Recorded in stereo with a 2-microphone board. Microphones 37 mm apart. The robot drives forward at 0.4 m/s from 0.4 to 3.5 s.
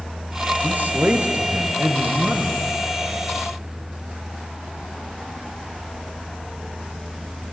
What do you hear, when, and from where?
0.6 s a man speaking: 60° right (ahead or behind), 3 m; by 2.6 s 55° right (ahead or behind), 3 m